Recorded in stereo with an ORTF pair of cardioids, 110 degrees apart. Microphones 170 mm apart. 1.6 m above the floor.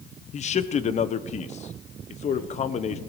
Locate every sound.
0.3 s a man speaking: 45° left, 1.0 m